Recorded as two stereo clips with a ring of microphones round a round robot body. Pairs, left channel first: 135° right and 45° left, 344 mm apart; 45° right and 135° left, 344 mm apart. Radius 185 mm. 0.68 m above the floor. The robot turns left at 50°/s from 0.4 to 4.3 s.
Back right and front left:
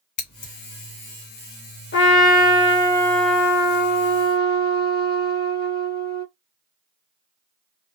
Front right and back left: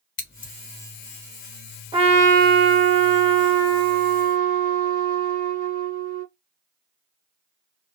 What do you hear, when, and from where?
0.2 s scissors: 100° right, 2 m; by 0.5 s 105° right, 2 m
1.9 s a trumpet: 155° right, 1.2 m; by 6.2 s 85° left, 1.2 m